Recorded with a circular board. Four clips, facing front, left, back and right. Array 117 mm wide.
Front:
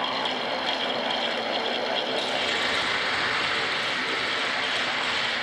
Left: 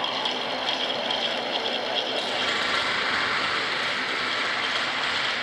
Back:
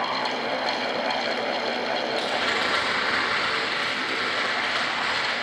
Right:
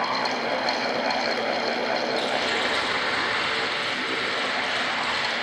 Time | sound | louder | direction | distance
2.1 | a rattle | right 3 dB, back 2 dB | 160° left | 6.5 m